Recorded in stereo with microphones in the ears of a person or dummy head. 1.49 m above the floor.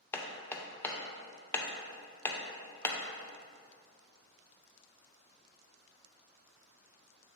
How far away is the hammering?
About 0.6 m.